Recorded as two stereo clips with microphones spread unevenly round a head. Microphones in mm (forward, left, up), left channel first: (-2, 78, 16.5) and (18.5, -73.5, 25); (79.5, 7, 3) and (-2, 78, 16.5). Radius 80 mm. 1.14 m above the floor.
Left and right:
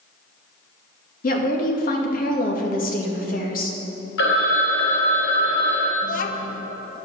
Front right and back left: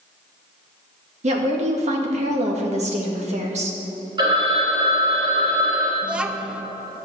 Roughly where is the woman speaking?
Behind left.